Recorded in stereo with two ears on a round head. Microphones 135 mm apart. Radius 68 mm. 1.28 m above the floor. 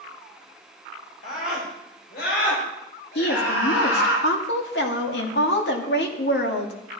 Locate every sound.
1.2 s a scream: 55° left (ahead or behind), 4 m; by 4.2 s 90° left, 7 m
3.1 s a woman speaking: 85° left, 2.5 m